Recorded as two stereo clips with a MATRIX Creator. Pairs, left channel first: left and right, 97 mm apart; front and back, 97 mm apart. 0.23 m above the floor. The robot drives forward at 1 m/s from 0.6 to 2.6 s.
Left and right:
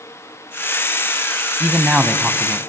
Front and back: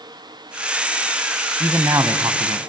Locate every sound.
1.6 s a man speaking: 155° right, 1.1 m; by 2.6 s 170° right, 1.7 m